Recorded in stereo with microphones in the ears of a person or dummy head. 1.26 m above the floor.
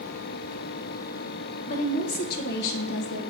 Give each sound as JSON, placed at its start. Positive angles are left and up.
{"t": 1.7, "sound": "a woman speaking", "side_deg": 45, "distance_m": 1.5}